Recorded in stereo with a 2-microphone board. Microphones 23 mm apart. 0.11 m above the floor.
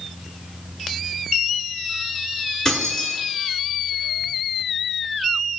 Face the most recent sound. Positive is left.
turn(degrees=25)  # may be behind; listen again after turning